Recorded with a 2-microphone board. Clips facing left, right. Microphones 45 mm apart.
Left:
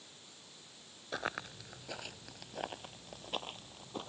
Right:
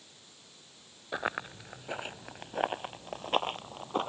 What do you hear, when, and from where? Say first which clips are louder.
1.1 s running footsteps: right 5 dB; 20° right (ahead or behind); by 4.1 s 55° right (ahead or behind)